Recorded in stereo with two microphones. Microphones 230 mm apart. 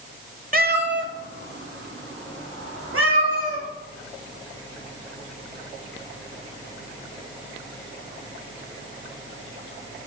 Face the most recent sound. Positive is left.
turn(degrees=-75)  # may be behind; listen again after turning